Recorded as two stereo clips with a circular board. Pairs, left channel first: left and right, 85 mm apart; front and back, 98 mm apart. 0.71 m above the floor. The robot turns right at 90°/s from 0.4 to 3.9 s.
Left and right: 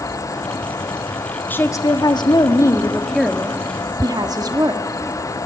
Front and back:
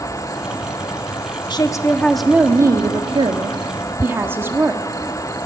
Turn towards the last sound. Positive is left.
turn(degrees=-120)